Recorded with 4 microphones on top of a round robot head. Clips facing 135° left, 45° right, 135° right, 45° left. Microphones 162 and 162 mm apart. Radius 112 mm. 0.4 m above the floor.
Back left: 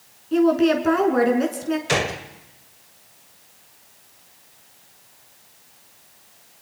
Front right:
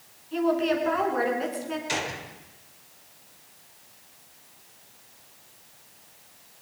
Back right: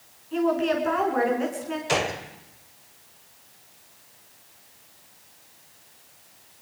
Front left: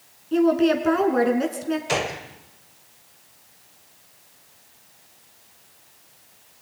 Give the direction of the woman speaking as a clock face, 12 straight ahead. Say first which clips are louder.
Back left 7 dB, front left 5 dB; 9 o'clock.